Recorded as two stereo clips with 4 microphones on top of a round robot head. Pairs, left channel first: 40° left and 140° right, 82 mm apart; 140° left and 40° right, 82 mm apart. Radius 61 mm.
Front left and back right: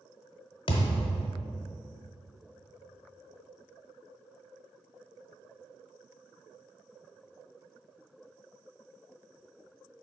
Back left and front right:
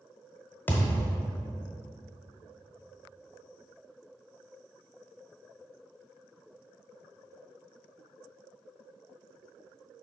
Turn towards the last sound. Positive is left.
turn(degrees=70)